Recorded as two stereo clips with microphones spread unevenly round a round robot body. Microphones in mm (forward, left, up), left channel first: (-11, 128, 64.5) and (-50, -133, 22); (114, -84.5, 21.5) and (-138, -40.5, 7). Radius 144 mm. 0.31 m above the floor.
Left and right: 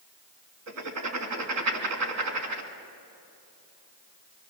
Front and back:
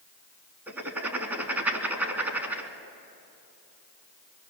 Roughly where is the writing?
Right.